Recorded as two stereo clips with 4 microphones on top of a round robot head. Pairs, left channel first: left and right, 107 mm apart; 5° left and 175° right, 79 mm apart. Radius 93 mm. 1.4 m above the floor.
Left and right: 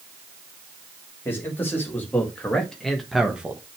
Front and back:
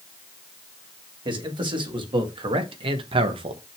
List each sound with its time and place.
1.2 s a man speaking: 165° left, 2.5 m; by 3.6 s 165° right, 1.0 m